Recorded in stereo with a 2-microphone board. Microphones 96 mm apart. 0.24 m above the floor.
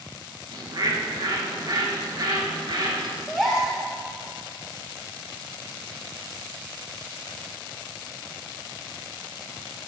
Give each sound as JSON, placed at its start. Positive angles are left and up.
{"t": 0.5, "sound": "a bird", "side_deg": -50, "distance_m": 1.4}
{"t": 3.3, "sound": "a gasp", "side_deg": 0, "distance_m": 1.9}